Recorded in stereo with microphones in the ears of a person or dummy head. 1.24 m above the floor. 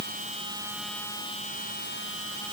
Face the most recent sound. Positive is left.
No sound to turn to.